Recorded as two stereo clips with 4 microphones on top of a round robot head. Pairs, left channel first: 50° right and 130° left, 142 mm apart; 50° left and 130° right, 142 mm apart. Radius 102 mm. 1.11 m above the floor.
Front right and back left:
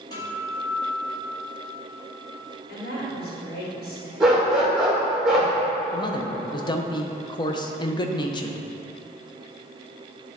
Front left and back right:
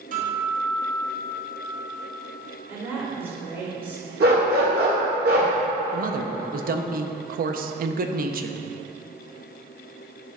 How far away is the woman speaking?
About 2.5 m.